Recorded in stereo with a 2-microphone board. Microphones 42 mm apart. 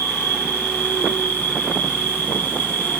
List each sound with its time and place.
0.0 s an insect: 75° left (ahead or behind), 1.7 m